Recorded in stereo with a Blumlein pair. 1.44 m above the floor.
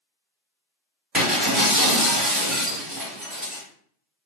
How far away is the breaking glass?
About 1.7 m.